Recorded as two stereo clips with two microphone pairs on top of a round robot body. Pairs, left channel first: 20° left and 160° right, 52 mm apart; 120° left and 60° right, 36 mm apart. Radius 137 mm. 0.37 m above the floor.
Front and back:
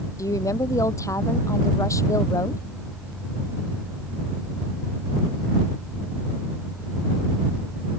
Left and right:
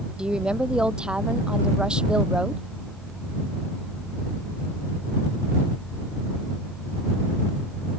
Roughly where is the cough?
I don't hear a cough.